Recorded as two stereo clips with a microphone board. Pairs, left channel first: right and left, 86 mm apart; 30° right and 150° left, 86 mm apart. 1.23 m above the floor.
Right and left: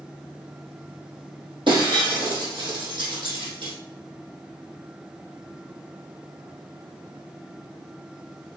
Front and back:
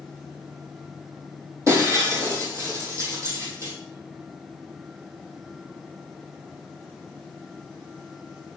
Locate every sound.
1.7 s breaking glass: 95° left, 3.5 m